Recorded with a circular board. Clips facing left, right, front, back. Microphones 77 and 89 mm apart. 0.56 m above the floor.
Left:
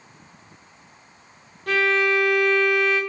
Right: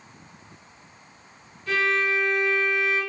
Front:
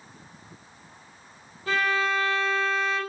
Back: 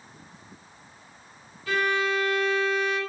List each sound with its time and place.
1.7 s a violin: 55° left, 1.2 m